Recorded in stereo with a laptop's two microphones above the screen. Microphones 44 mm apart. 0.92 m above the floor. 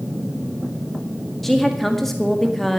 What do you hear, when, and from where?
1.4 s a woman speaking: 5° left (ahead or behind), 1.9 m